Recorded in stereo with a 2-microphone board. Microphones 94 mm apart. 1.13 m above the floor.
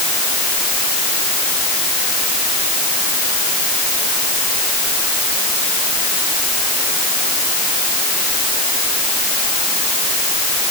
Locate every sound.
Only background noise.